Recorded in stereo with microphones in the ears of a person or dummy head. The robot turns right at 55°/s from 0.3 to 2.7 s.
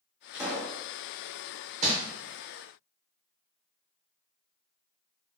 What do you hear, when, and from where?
0.3 s a pop: 5° right (ahead or behind), 1.7 m; by 0.8 s 30° right (ahead or behind), 1.7 m
1.8 s crumpling: 35° right (ahead or behind), 0.8 m; by 1.9 s 40° right (ahead or behind), 0.8 m